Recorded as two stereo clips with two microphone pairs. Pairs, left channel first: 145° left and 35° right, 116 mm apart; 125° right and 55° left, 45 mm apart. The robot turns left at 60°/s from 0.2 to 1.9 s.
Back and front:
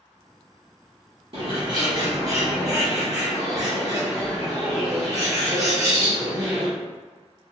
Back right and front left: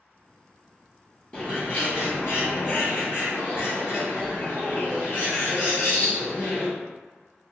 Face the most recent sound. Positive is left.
turn(degrees=-90)